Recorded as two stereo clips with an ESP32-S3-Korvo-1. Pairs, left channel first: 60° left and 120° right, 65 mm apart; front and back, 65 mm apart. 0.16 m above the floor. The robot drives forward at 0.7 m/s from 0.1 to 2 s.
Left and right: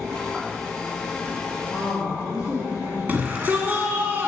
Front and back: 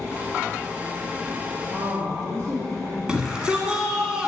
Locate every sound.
1.7 s a woman speaking: 165° left, 3 m
3.1 s a shout: 125° right, 1.2 m